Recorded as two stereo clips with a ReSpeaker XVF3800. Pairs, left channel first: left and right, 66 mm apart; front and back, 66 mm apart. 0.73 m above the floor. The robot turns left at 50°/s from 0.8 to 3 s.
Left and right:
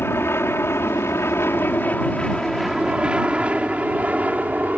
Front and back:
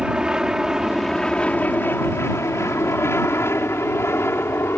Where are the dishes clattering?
No dishes clattering in this recording.